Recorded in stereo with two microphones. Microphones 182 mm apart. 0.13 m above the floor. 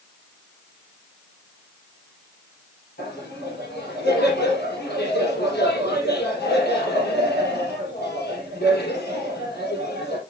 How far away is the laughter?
About 4 m.